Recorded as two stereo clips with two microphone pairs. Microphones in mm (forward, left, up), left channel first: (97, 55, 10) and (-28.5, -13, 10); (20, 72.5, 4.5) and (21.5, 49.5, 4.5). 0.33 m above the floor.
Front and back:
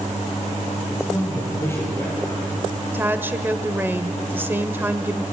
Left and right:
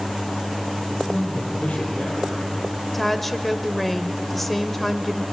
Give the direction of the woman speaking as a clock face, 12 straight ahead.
7 o'clock.